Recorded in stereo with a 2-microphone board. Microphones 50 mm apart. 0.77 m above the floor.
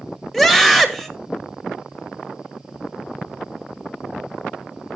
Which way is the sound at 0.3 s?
5° left (ahead or behind).